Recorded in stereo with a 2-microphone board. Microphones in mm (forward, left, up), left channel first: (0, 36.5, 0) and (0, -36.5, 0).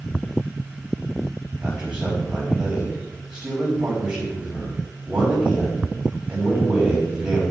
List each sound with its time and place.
1.6 s a man speaking: 5° right (ahead or behind), 3 m